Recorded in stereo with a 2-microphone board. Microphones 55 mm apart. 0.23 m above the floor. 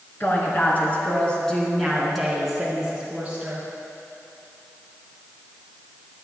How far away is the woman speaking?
About 3 m.